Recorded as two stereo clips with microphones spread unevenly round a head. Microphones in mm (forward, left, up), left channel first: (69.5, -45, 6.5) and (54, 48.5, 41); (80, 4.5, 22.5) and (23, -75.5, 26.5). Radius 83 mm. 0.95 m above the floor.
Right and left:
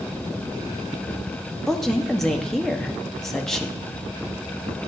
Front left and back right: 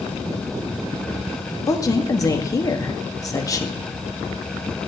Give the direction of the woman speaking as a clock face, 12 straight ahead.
12 o'clock.